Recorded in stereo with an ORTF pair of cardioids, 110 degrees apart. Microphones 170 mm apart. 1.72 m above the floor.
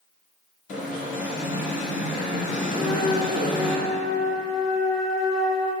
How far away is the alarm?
About 3 m.